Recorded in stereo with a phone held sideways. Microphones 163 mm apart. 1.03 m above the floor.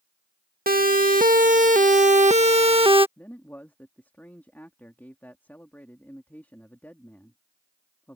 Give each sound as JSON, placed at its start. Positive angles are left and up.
{"t": 0.7, "sound": "a siren", "side_deg": -60}
{"t": 3.2, "sound": "a man speaking", "side_deg": 10}